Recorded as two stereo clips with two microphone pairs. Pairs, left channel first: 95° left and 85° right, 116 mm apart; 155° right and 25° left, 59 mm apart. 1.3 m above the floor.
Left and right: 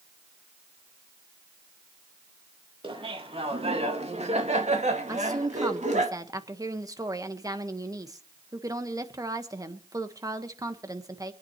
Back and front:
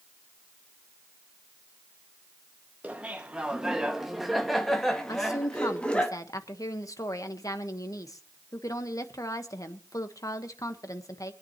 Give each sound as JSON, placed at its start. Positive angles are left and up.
{"t": 2.8, "sound": "laughter", "azimuth_deg": -40, "distance_m": 2.0}
{"t": 5.1, "sound": "a woman speaking", "azimuth_deg": -145, "distance_m": 1.4}